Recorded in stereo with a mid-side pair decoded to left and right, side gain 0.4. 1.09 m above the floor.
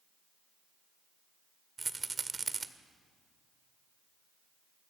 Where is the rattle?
35° right, 1.8 m.